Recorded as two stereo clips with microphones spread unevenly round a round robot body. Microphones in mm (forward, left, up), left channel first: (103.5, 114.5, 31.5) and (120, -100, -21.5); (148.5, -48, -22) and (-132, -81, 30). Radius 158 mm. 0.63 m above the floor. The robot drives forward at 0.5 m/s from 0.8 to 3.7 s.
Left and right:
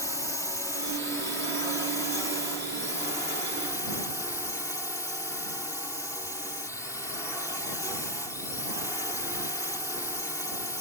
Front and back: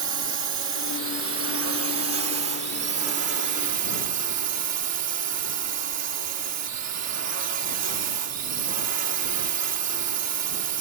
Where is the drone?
175° right; by 10.8 s straight behind.